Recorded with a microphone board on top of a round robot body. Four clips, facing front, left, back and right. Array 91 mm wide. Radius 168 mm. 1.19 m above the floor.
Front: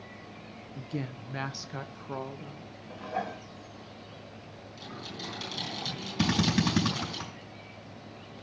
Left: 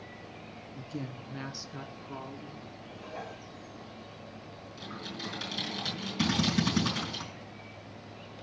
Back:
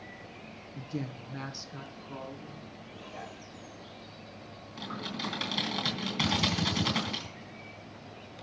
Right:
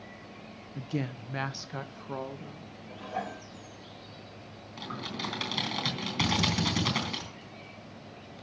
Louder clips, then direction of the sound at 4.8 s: Right 4 dB, back 5 dB; 120° right.